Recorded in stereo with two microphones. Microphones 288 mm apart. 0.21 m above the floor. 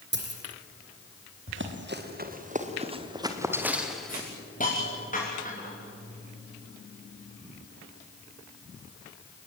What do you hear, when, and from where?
0.1 s a dropped coin: 40° right (ahead or behind), 4 m
1.5 s running footsteps: 45° right (ahead or behind), 3.5 m; by 4.3 s 5° left (ahead or behind), 3.5 m
4.1 s a hiss: 25° left (ahead or behind), 7 m